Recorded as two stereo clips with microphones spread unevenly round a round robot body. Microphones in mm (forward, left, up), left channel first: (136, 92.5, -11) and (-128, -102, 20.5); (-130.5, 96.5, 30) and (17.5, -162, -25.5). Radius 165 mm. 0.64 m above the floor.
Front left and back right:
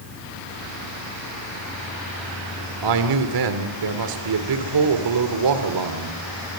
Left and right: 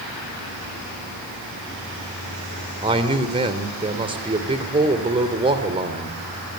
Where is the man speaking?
125° right, 2.5 m.